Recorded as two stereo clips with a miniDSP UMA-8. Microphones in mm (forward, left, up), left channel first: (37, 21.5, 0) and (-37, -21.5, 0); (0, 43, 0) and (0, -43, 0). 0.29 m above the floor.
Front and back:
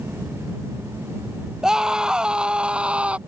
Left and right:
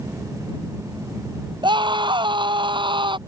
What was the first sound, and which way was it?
A scream, 65° right.